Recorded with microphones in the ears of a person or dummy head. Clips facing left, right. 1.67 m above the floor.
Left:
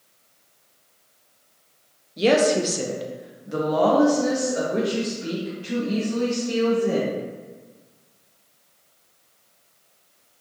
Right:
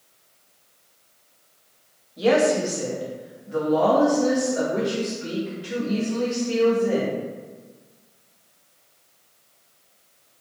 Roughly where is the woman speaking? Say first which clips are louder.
Left 1 dB; left.